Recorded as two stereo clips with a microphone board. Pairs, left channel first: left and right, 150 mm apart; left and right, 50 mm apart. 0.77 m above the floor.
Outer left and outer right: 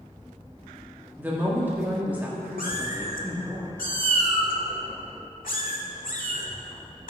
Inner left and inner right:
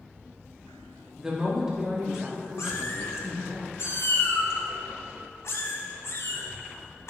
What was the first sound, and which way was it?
A woman speaking, 10° right (ahead or behind).